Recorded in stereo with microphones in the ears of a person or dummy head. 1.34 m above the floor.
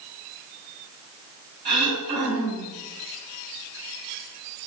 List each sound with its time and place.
1.6 s throat clearing: 25° right (ahead or behind), 2.5 m